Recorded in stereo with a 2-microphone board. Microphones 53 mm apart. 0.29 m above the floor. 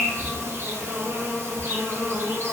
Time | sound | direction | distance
0.0 | an insect | 60° right (ahead or behind) | 0.9 m